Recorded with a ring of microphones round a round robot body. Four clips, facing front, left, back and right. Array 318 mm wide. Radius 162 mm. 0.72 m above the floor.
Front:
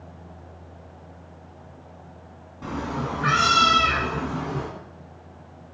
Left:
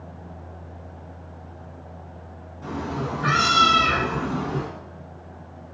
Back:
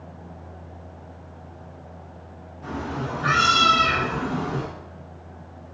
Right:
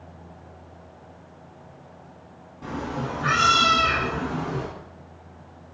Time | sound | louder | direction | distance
2.6 | a cat meowing | left 1 dB, front 1 dB | 5° right | 0.8 m